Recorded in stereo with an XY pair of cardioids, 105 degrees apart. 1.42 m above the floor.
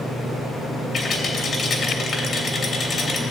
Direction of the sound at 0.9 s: 45° left.